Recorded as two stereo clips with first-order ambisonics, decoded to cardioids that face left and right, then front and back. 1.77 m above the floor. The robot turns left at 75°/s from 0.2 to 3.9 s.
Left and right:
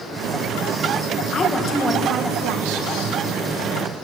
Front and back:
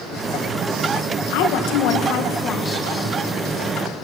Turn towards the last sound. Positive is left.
turn(degrees=-170)